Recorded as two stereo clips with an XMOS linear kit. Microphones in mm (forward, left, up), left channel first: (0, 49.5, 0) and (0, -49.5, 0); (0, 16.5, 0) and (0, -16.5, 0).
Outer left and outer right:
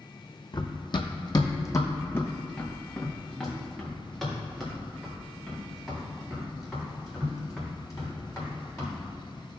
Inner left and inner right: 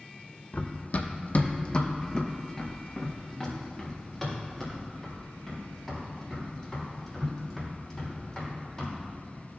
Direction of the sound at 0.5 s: 45° left (ahead or behind).